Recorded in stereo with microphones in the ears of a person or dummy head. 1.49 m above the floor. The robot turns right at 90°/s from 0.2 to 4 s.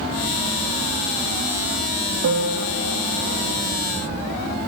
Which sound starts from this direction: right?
A piano, at 2.2 s.